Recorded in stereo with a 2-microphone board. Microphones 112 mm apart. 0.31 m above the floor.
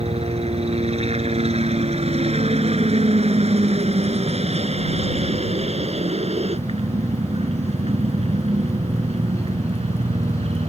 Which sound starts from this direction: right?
A helicopter, at 0.0 s.